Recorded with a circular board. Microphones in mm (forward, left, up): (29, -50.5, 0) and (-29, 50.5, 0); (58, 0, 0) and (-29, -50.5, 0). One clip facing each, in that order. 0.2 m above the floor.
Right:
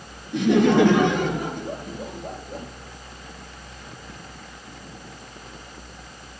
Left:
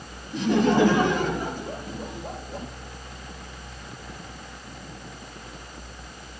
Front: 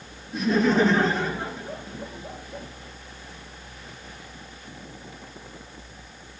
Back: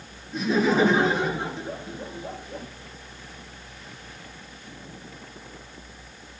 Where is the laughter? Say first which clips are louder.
Right 3 dB, front 1 dB; 60° right, 3 m; by 2.7 s 100° right, 4 m.